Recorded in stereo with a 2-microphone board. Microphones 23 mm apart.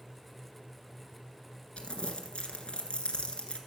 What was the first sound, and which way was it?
Crumpling, 55° left (ahead or behind).